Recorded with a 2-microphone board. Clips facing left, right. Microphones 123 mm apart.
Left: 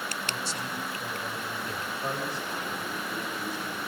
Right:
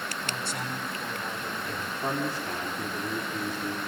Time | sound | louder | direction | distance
0.2 | a man speaking | right 1 dB | 55° right (ahead or behind) | 5.5 m
2.0 | a man speaking | right 4 dB | 65° right (ahead or behind) | 3 m